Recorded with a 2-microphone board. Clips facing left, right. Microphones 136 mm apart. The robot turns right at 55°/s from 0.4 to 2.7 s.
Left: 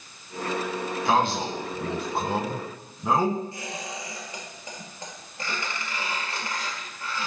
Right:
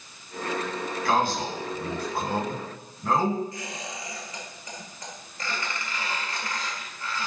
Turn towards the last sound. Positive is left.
turn(degrees=30)  # may be behind; listen again after turning